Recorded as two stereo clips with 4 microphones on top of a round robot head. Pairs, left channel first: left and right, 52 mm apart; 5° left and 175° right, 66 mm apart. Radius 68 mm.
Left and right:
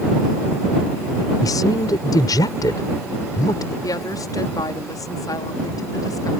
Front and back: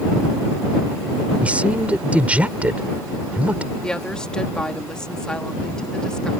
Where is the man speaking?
110° left.